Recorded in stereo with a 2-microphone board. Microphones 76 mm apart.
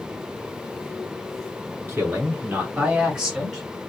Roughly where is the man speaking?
Right.